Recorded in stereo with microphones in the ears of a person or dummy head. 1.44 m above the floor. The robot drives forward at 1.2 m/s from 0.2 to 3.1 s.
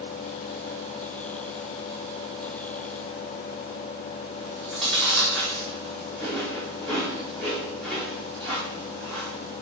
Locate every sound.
4.4 s chewing: 10° left (ahead or behind), 4.5 m